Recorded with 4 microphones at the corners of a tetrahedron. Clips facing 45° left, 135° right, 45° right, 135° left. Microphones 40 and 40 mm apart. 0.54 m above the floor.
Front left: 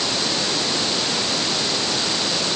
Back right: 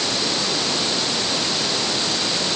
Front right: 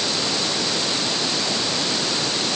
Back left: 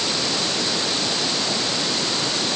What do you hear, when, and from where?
Only background noise.